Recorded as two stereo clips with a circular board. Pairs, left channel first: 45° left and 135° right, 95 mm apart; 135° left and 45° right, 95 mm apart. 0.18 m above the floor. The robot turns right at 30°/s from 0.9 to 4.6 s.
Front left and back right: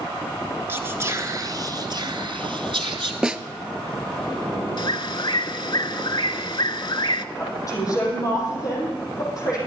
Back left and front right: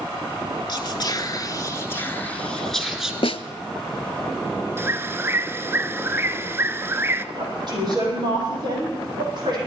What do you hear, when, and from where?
0.7 s whispering: 165° left, 2.0 m; by 3.1 s 130° right, 2.0 m
3.2 s a snare drum: 145° left, 0.6 m; by 3.4 s 150° left, 0.6 m
4.8 s a bird: 20° left, 0.5 m
7.3 s a woman speaking: 5° right, 6 m